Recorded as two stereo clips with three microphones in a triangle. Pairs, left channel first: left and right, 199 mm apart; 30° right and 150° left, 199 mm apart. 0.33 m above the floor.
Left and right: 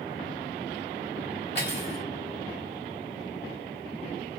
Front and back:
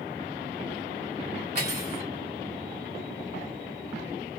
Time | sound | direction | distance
1.6 | cutlery clinking | 115° left | 2 m